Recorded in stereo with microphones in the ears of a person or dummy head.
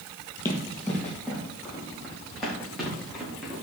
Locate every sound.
0.5 s running footsteps: 15° left (ahead or behind), 3 m; by 3.6 s centre (ahead or behind), 6 m